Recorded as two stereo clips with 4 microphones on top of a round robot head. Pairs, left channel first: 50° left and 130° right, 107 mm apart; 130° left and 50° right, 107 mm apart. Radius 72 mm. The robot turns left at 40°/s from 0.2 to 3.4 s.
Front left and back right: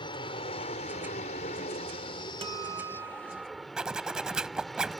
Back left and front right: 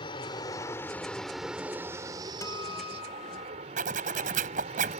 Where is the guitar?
170° right; by 3.7 s 150° left.